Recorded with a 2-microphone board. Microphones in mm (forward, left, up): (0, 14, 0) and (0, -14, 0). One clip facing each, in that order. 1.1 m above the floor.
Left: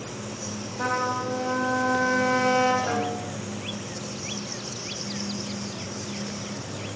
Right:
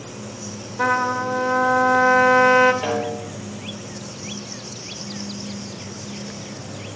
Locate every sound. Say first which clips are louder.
0.8 s a trumpet: right 6 dB; 60° right (ahead or behind), 2 m
2.8 s a snare drum: right 3 dB; 50° right (ahead or behind), 4 m